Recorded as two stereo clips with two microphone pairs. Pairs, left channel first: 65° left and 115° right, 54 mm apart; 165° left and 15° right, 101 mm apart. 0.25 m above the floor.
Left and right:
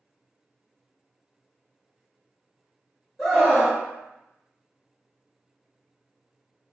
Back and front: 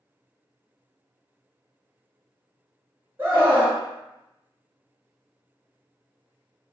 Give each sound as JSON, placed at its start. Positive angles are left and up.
{"t": 3.2, "sound": "a scream", "azimuth_deg": -30, "distance_m": 1.3}